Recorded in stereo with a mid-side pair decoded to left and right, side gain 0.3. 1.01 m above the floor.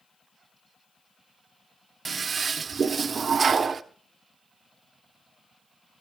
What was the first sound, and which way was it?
A toilet flushing, 55° right.